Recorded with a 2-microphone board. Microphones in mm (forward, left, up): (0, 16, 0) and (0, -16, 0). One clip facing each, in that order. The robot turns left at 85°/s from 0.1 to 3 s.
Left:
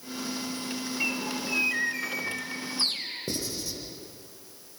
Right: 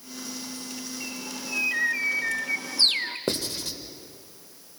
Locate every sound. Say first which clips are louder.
1.0 s a bird: left 6 dB; 55° left, 1.1 m; by 3.2 s 115° right, 1.1 m
3.3 s writing: right 4 dB; 70° right (ahead or behind), 1.4 m